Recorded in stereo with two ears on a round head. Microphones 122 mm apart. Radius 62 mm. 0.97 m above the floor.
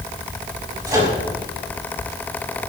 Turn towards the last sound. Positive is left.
turn(degrees=-25)  # may be behind; listen again after turning